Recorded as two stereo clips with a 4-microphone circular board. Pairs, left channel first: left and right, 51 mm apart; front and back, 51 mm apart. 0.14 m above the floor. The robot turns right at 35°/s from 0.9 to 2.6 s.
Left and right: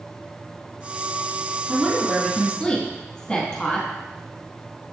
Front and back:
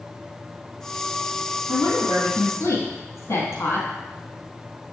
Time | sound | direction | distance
1.7 | a woman speaking | 15° right | 3.5 m